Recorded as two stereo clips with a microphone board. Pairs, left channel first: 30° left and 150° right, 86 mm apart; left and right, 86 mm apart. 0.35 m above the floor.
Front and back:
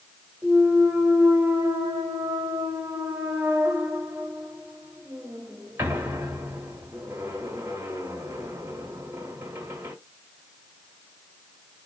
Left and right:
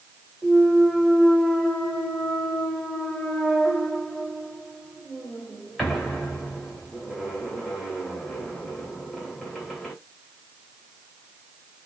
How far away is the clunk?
About 1.7 m.